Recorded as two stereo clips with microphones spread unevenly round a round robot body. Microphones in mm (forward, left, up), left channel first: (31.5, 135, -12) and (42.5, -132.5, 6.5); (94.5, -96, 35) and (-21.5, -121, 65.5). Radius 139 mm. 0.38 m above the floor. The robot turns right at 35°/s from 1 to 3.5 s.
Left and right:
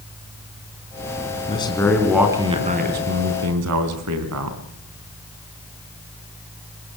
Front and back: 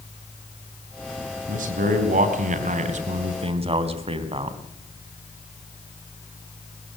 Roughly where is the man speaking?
Behind.